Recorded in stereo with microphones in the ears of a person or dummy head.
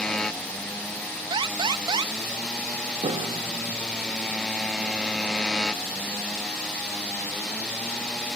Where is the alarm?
20° right (ahead or behind).